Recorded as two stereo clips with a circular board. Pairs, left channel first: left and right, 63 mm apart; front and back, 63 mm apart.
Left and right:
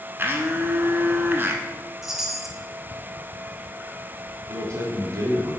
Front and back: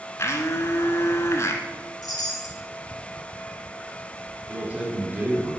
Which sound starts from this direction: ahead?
A chime, at 2.0 s.